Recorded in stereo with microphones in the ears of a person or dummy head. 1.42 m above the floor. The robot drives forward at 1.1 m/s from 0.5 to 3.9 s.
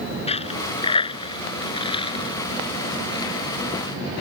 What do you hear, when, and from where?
0.3 s a dropped coin: 30° left (ahead or behind); by 4.2 s 20° left (ahead or behind)